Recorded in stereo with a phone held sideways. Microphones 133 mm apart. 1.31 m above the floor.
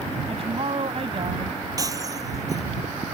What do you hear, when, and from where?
0.3 s a woman speaking: 45° right (ahead or behind)
1.8 s breaking glass: 25° right (ahead or behind)